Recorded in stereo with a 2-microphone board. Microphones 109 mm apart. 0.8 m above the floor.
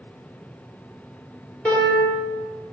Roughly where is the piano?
Centre.